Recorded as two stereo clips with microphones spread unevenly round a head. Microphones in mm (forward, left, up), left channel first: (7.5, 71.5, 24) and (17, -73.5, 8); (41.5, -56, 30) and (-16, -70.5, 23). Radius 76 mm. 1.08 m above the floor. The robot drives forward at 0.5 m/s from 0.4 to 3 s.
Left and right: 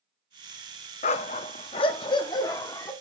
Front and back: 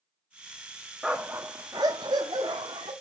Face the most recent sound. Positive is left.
turn(degrees=160)